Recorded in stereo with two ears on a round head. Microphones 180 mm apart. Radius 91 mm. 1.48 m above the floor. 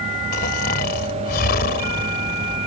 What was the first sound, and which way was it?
Snoring, 50° left (ahead or behind).